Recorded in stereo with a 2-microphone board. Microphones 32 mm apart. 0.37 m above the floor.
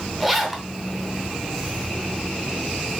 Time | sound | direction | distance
0.2 | a zipper | 5° right (ahead or behind) | 0.8 m